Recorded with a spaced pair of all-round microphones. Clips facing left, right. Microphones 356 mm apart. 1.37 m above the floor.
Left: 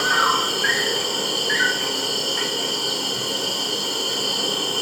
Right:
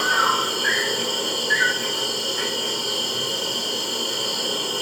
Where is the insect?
80° left, 0.8 m.